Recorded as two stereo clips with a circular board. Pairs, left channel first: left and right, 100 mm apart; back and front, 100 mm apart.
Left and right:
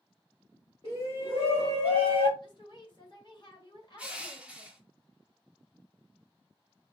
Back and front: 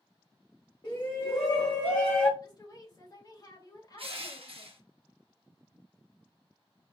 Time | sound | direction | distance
0.8 | a shout | 125° left | 2.0 m
2.4 | a woman speaking | 130° left | 2.5 m
4.0 | crushing | 10° right | 1.2 m